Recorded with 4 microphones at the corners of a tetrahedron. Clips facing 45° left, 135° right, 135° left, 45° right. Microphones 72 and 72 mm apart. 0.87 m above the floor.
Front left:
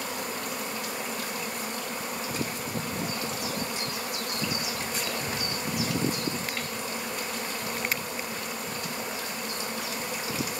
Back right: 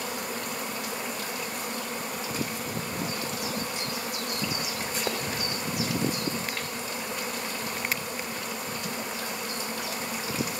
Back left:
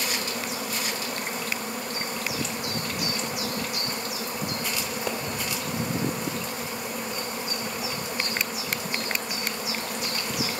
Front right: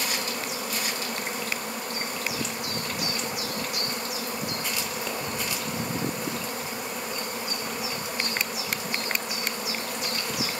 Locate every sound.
5.1 s a pop: 145° right, 2 m